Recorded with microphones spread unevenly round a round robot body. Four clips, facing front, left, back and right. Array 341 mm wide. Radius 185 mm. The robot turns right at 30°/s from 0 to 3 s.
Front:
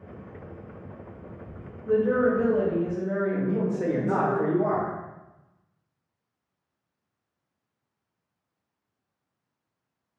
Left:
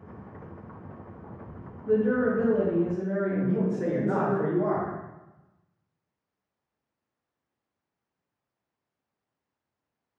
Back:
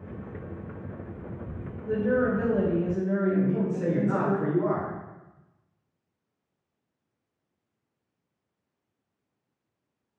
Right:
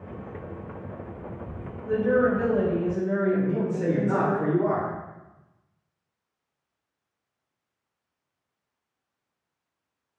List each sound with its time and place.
1.9 s a woman speaking: 135° left, 1.4 m; by 4.4 s 170° left, 1.4 m
3.4 s a man speaking: 5° left, 1.3 m